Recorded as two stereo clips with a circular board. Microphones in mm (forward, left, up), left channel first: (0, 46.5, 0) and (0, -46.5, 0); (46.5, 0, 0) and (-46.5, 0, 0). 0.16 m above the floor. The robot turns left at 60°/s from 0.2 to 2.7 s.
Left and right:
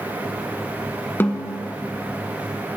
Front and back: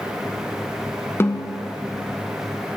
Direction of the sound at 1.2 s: 40° left.